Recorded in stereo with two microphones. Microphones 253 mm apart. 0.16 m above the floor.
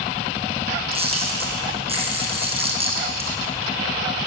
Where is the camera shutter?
25° right (ahead or behind), 2.5 m.